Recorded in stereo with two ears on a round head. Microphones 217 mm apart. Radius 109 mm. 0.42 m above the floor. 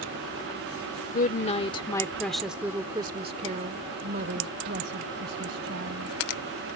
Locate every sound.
1.1 s a woman speaking: 35° left (ahead or behind); by 6.2 s 50° right (ahead or behind)